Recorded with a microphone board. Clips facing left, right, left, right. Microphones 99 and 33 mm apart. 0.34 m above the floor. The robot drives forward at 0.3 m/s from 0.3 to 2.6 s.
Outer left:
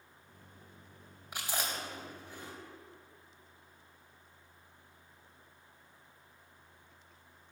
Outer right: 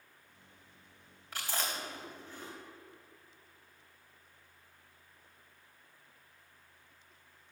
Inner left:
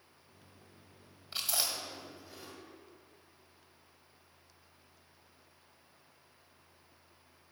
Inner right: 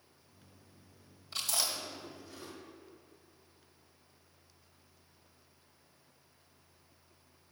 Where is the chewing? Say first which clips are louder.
Even, even; 15° left (ahead or behind), 1.9 m.